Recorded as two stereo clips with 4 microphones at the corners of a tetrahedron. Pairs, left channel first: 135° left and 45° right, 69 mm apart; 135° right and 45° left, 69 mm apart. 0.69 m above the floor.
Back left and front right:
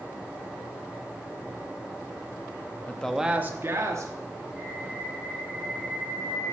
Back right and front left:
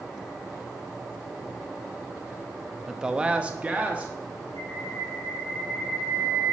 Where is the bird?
120° right, 5.5 m.